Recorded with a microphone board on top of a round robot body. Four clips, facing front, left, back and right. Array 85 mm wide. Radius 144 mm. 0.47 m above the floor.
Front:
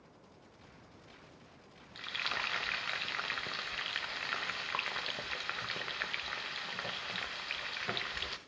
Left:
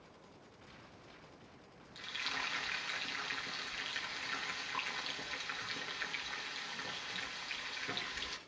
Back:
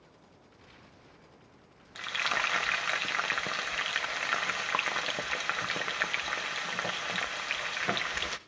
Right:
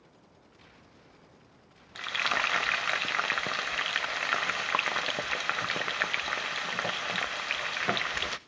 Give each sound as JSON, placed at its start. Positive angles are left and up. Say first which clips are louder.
{"t": 1.9, "sound": "frying", "louder": "right 13 dB, back 7 dB", "azimuth_deg": -115, "distance_m": 0.7}